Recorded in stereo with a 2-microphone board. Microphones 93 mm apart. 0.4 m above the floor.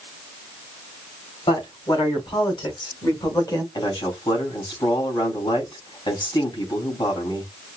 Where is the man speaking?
50° left (ahead or behind), 3 m.